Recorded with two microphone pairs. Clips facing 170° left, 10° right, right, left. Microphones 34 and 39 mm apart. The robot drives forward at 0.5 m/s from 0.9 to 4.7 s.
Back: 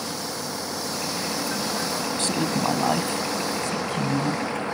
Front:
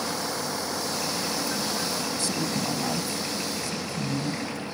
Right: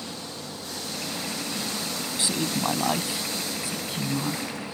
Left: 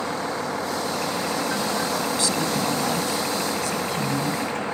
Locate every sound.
0.0 s a vehicle: 65° left; by 4.7 s 130° left
2.2 s a woman speaking: 155° right; by 4.7 s 160° right